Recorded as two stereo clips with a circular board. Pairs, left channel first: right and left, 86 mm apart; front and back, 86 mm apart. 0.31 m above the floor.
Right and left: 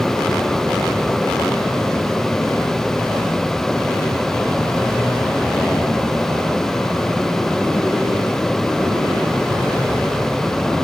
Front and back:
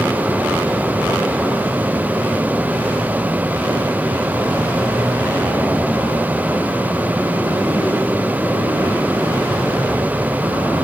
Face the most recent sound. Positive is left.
No sound to turn to.